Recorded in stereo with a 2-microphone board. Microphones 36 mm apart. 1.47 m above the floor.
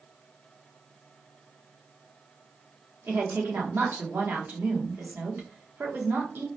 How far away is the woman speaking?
About 0.9 m.